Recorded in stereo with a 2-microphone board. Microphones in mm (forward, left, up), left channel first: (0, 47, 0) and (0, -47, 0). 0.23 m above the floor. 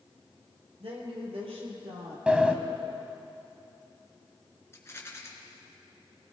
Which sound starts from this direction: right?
A woman speaking, at 0.8 s.